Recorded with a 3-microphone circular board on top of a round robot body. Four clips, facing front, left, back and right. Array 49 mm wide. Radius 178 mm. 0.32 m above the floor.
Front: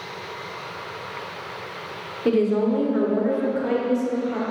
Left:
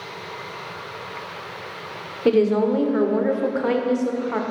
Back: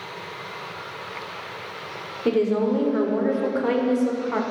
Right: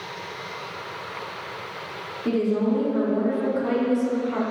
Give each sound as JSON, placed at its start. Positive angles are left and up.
{"t": 2.2, "sound": "a woman speaking", "azimuth_deg": 90, "distance_m": 2.0}